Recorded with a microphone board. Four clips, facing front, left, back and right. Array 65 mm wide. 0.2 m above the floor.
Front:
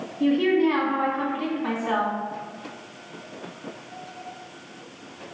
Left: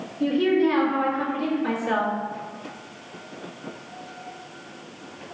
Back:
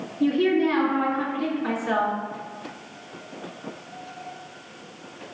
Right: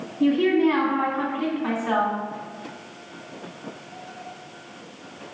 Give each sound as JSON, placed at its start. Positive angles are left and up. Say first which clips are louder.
{"t": 0.2, "sound": "a woman speaking", "louder": "right 1 dB, front 1 dB", "azimuth_deg": -50, "distance_m": 1.9}